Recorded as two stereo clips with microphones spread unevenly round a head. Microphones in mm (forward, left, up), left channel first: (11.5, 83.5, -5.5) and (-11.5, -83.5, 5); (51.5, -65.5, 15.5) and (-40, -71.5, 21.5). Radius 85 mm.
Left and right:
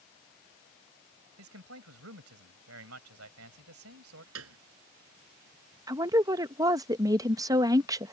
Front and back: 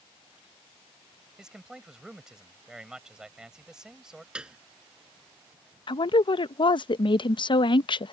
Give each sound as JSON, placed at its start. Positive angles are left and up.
{"t": 1.4, "sound": "a man speaking", "azimuth_deg": -95}
{"t": 4.3, "sound": "a piano", "azimuth_deg": -95}
{"t": 5.9, "sound": "a woman speaking", "azimuth_deg": -25}